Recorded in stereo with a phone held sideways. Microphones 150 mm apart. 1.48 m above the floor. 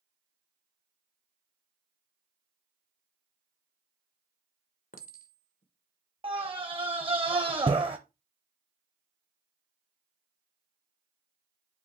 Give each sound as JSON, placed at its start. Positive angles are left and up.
{"t": 4.9, "sound": "a clink", "side_deg": 65, "distance_m": 1.1}
{"t": 6.2, "sound": "a scream", "side_deg": -35, "distance_m": 0.6}